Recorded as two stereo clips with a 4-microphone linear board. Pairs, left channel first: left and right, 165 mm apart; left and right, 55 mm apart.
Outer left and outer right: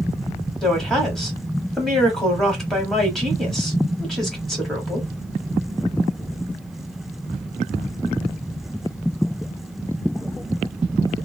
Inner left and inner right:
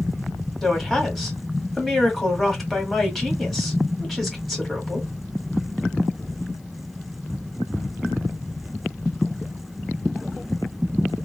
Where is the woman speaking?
Centre (ahead or behind), 1.5 m.